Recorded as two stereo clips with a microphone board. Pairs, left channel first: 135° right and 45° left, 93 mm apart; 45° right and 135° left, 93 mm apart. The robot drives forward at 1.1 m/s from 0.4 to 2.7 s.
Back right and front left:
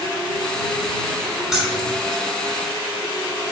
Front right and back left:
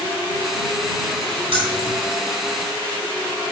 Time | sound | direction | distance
1.5 | keys jangling | 130° left | 3.5 m